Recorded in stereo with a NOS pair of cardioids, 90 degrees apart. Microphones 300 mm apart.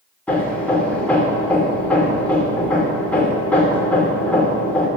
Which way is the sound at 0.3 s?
5° left.